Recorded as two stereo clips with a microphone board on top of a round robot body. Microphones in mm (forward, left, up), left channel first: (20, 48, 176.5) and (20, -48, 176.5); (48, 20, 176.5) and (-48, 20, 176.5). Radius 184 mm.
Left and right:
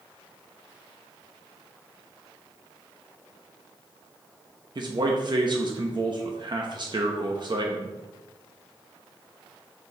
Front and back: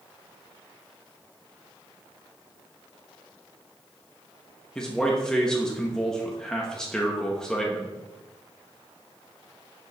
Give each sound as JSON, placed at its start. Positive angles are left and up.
{"t": 4.8, "sound": "a man speaking", "azimuth_deg": -80, "distance_m": 1.0}